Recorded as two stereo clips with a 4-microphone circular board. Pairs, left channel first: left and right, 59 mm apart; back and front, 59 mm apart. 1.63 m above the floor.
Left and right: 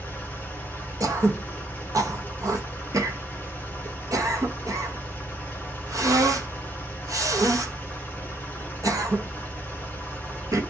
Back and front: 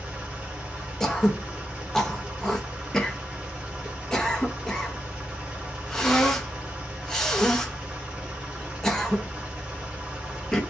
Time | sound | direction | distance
0.0 | an engine running | 65° left | 0.8 m
1.0 | throat clearing | 95° right | 0.7 m